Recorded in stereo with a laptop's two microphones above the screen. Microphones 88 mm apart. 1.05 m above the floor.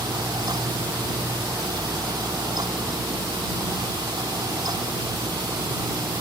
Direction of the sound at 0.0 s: 45° right (ahead or behind).